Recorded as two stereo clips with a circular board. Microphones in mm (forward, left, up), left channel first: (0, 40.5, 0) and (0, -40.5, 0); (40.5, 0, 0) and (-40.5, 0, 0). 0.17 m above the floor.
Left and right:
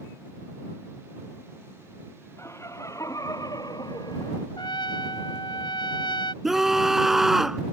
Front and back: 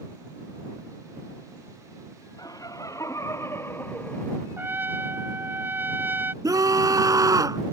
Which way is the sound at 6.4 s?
175° right.